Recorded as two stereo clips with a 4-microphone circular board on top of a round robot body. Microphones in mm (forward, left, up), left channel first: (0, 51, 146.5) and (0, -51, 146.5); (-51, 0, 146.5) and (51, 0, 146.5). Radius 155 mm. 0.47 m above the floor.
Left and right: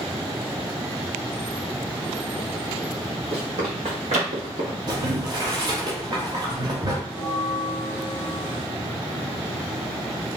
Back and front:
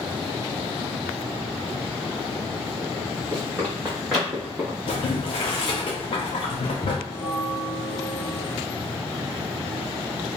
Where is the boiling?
140° right, 0.5 m.